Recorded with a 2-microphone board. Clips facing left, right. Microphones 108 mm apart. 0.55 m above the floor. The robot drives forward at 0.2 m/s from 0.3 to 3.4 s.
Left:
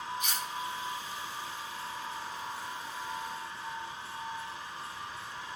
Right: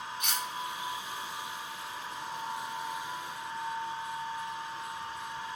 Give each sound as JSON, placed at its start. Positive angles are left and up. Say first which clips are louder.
{"t": 0.2, "sound": "cutlery clinking", "louder": "right 1 dB", "side_deg": -70, "distance_m": 0.6}